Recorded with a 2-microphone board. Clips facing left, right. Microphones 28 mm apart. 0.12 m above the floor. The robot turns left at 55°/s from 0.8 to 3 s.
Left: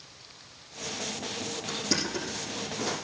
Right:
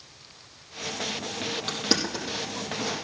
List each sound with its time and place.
1.7 s crushing: 60° right (ahead or behind), 4.5 m; by 3.0 s 5° left (ahead or behind), 4.5 m